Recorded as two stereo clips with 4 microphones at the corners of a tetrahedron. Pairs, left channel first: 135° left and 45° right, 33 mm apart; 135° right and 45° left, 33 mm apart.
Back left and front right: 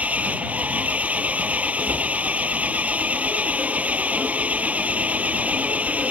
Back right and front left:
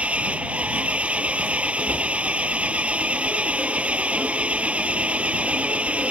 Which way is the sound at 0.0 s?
5° right.